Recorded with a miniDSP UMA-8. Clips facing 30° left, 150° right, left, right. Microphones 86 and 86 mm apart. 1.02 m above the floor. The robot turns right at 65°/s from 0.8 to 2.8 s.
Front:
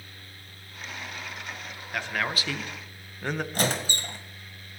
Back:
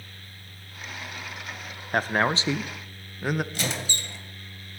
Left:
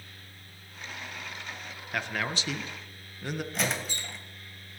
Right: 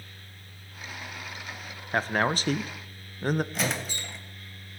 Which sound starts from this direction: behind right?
A man speaking, at 1.9 s.